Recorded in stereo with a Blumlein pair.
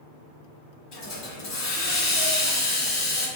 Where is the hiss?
40° left, 1.3 m.